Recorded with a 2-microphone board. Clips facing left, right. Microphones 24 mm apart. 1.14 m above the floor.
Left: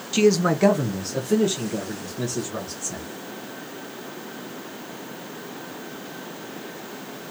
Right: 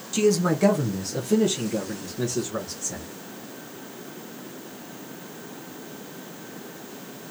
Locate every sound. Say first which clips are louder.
0.1 s a man speaking: left 3 dB; 30° left (ahead or behind), 0.5 m; by 3.1 s centre (ahead or behind), 2 m